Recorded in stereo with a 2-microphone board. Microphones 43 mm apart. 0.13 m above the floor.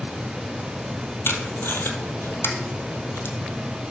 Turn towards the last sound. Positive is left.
turn(degrees=70)  # may be behind; listen again after turning